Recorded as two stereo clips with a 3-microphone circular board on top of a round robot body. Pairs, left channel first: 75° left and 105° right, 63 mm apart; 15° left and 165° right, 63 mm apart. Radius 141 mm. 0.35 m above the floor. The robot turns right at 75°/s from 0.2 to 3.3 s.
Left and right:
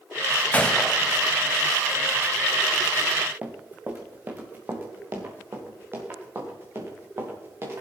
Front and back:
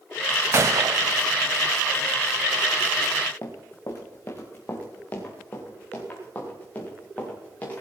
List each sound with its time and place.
0.5 s a gunshot: 145° left, 0.6 m; by 1.2 s 165° right, 0.6 m
3.4 s running footsteps: 35° right, 2.5 m; by 7.8 s 55° right, 5.5 m